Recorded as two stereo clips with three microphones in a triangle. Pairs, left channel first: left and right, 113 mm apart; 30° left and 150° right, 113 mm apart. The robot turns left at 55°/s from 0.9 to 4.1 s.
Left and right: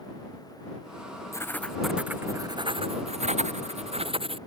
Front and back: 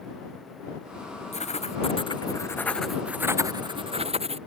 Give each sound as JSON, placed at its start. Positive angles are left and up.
{"t": 1.3, "sound": "writing", "azimuth_deg": 30}